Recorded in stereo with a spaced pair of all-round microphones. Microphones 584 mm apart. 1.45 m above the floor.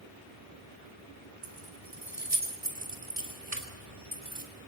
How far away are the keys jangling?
About 3.5 m.